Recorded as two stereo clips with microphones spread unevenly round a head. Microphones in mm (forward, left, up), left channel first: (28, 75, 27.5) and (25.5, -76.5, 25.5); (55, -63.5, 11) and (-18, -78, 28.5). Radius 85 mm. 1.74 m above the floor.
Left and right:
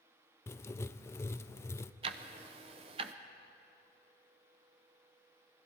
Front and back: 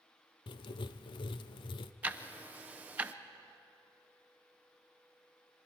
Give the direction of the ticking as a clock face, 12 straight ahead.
4 o'clock.